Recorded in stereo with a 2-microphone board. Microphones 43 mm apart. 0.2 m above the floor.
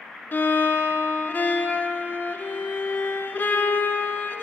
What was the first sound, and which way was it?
A violin, 45° left (ahead or behind).